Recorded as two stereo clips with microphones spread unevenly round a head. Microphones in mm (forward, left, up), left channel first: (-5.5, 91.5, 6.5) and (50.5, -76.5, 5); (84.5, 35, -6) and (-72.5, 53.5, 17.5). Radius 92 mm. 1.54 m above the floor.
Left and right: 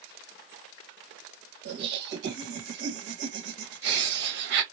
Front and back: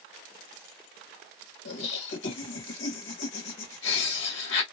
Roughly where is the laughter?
Ahead right.